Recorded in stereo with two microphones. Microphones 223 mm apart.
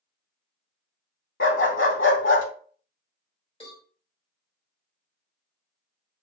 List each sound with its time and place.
1.4 s a dog barking: 65° left (ahead or behind), 0.7 m
3.6 s a cowbell: 25° left (ahead or behind), 1.9 m